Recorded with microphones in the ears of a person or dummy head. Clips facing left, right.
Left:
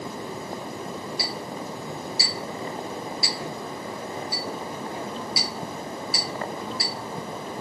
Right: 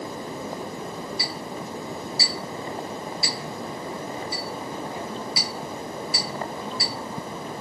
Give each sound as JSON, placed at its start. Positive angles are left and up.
{"t": 1.2, "sound": "a clink", "side_deg": 0, "distance_m": 1.7}